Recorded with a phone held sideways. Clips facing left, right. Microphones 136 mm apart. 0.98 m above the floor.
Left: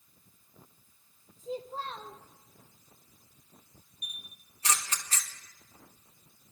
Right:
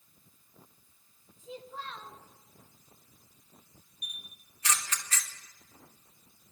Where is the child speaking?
35° left (ahead or behind), 0.5 m.